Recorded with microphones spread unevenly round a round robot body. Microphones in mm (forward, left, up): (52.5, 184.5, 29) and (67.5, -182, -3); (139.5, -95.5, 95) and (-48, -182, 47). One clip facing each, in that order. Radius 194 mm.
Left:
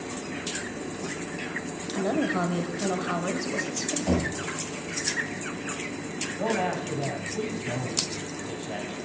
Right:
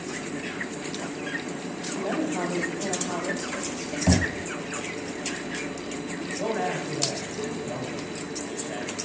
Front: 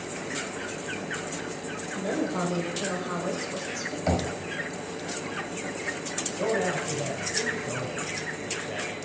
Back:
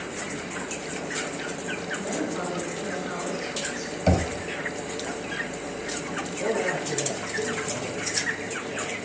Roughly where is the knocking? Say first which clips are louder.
Right 2 dB, back 4 dB; right.